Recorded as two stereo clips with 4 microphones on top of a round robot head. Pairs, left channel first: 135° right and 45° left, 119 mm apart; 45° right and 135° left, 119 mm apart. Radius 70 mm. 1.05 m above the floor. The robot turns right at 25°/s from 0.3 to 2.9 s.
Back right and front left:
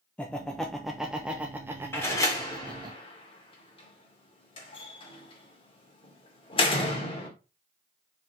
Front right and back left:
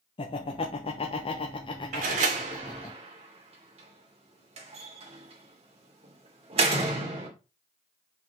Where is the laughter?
55° right, 1.0 m; by 2.9 s 10° left, 1.0 m.